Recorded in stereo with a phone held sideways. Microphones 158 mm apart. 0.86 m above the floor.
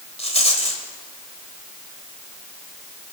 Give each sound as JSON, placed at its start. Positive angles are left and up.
{"t": 0.2, "sound": "a rattle", "side_deg": 40, "distance_m": 2.5}